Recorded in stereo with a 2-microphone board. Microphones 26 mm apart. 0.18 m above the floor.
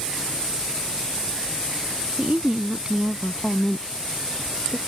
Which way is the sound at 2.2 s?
55° right (ahead or behind).